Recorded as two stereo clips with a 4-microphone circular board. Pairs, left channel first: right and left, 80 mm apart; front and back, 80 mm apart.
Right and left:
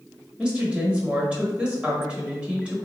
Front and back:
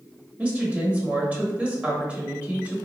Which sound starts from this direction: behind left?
A woman speaking, at 0.4 s.